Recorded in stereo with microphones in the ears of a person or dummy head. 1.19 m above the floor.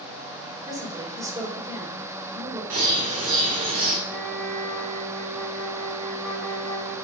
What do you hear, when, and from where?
0.6 s a woman speaking: 20° right (ahead or behind), 4 m
2.7 s a bird: 40° right (ahead or behind), 2.0 m
4.1 s a flute: 5° left (ahead or behind), 1.5 m